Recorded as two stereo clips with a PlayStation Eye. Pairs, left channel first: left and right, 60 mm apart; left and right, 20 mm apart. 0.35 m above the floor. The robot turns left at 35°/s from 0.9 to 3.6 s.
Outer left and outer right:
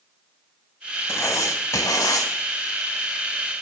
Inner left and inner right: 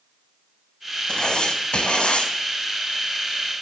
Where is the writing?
130° left, 0.8 m; by 2.3 s 85° left, 0.8 m.